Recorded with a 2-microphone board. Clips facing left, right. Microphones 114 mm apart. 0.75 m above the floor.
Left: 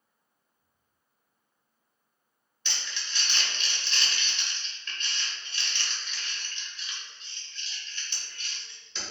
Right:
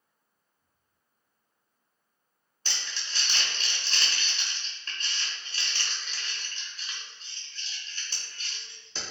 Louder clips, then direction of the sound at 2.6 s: Even; 40° right (ahead or behind).